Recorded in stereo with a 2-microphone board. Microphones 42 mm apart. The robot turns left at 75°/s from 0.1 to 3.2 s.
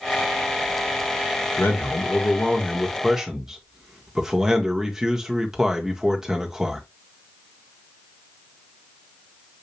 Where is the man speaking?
105° left, 1.4 m; by 6.8 s 20° right, 1.4 m.